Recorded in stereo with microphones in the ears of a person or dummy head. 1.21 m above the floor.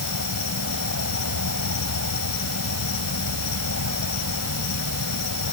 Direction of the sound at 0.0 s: 80° left.